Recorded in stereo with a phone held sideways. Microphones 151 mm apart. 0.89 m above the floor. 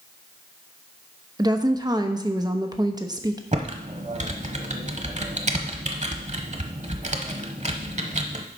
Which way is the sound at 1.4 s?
25° right (ahead or behind).